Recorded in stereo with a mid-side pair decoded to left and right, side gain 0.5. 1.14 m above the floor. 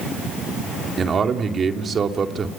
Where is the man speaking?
40° right, 2.5 m.